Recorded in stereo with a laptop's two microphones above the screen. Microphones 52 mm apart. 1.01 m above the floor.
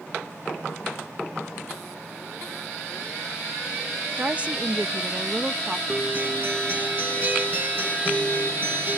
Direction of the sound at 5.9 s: 40° right (ahead or behind).